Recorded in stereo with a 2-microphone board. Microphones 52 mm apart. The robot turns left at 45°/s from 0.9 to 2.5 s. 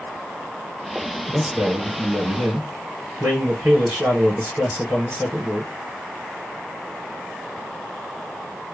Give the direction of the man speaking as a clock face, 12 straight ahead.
1 o'clock.